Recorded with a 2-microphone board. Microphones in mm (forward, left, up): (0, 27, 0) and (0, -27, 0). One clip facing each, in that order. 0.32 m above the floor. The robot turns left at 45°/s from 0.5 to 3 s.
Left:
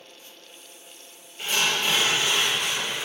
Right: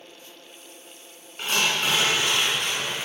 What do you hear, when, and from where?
1.4 s tearing paper: 65° right, 2 m; by 3.1 s 140° right, 2 m